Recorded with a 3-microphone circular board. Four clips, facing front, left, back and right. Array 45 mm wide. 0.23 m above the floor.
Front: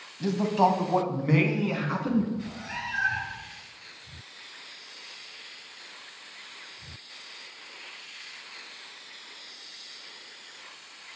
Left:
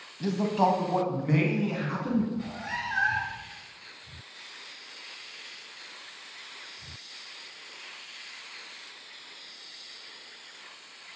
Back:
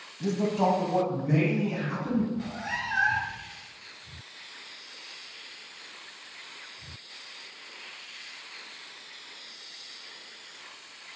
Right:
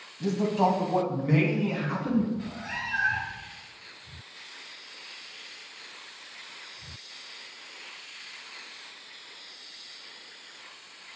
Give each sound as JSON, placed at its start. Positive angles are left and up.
{"t": 0.2, "sound": "a man speaking", "azimuth_deg": 45, "distance_m": 1.1}
{"t": 2.3, "sound": "a cat meowing", "azimuth_deg": 150, "distance_m": 2.5}